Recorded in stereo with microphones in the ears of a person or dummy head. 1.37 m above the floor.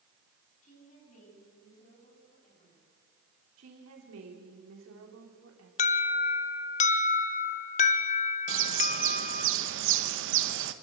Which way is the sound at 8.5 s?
75° right (ahead or behind).